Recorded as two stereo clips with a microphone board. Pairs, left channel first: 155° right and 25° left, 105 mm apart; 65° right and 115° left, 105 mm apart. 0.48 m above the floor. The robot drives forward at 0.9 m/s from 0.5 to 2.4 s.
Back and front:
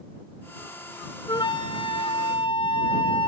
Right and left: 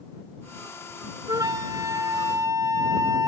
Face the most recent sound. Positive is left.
turn(degrees=170)